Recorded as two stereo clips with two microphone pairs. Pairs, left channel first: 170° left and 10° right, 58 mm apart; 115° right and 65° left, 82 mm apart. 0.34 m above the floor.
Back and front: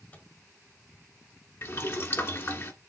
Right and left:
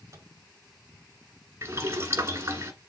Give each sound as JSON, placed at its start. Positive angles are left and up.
{"t": 0.1, "sound": "a microwave", "azimuth_deg": 115, "distance_m": 1.7}
{"t": 1.6, "sound": "boiling", "azimuth_deg": 125, "distance_m": 1.4}